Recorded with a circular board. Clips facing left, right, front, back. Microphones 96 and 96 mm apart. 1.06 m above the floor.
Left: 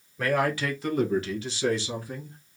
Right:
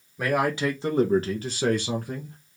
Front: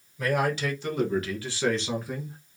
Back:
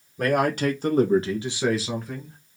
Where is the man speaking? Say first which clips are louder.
Right 1 dB, back 4 dB; 165° right, 1.5 m; by 2.4 s 75° right, 1.3 m.